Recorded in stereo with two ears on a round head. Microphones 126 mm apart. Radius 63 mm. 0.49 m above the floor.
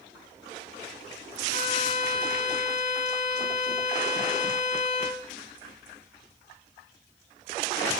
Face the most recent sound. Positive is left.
turn(degrees=55)  # may be behind; listen again after turning